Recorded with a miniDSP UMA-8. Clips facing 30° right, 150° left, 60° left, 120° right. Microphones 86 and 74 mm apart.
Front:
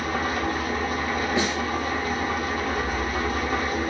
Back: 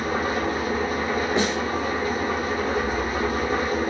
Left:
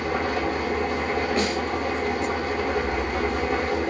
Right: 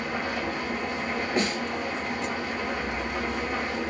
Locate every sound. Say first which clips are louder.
0.0 s an engine running: back 2 dB, left 5 dB; 85° left, 1.3 m
1.4 s a snare drum: back 2 dB, left 2 dB; 175° right, 1.9 m